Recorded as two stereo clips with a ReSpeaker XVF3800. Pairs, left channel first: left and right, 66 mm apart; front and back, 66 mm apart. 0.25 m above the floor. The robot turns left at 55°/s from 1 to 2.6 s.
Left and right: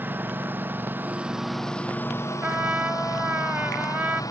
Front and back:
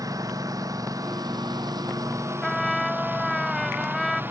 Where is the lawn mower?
150° right; by 4.3 s 120° left.